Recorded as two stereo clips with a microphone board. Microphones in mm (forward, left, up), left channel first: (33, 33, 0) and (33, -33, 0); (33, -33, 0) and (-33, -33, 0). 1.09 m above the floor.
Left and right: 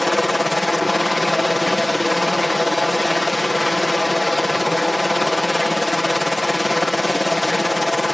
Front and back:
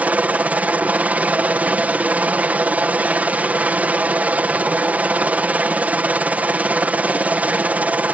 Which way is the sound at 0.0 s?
Straight behind.